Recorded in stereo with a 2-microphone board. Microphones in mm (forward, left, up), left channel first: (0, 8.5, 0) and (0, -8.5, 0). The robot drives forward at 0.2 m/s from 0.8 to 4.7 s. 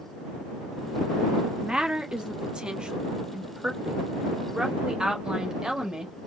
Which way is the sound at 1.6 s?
50° right (ahead or behind).